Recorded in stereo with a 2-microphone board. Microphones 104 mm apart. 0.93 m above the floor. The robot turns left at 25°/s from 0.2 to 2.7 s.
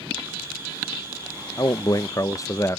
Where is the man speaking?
40° left (ahead or behind); by 2.8 s 30° left (ahead or behind).